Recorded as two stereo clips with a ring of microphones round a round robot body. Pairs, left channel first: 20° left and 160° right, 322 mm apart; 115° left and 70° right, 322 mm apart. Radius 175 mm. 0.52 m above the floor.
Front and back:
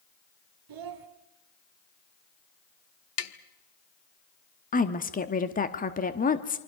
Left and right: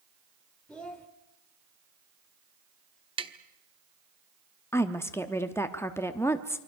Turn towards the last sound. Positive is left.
turn(degrees=40)